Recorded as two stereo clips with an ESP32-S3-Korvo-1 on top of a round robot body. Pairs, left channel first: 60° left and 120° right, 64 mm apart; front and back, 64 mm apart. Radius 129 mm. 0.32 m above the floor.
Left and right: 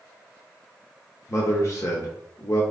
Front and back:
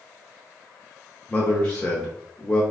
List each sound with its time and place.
1.3 s a man speaking: 65° left, 1.2 m